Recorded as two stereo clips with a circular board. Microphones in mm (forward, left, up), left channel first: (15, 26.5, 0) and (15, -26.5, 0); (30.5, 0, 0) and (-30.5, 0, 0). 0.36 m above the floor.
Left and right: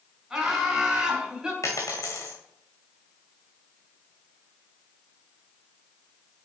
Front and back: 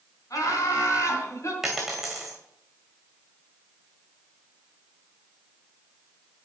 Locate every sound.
0.3 s laughter: 10° right, 3.5 m; by 1.5 s 20° right, 2.5 m
1.6 s a dropped coin: 95° left, 1.9 m